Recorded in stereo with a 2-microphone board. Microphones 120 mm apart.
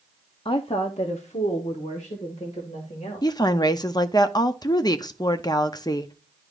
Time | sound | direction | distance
0.5 | a woman speaking | 45° left (ahead or behind) | 0.5 m
3.2 | a woman speaking | 35° left (ahead or behind) | 0.5 m